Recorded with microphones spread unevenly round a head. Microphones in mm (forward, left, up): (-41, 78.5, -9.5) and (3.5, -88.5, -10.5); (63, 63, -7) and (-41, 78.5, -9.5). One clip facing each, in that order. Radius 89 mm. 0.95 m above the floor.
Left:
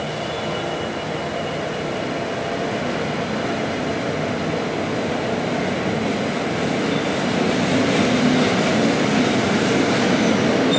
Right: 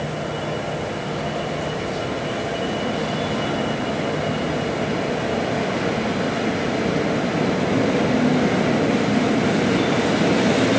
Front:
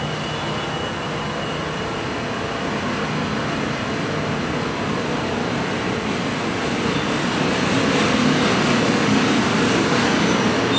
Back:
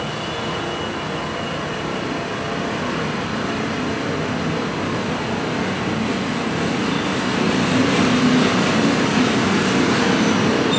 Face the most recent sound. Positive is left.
No sound to turn to.